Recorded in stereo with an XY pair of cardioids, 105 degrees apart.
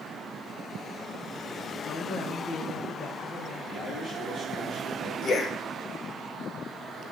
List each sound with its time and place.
1.8 s a woman speaking: 60° left, 1.3 m; by 3.6 s 65° left, 2.5 m
3.7 s a man speaking: 55° left, 4.5 m
5.2 s a man speaking: 50° left, 1.0 m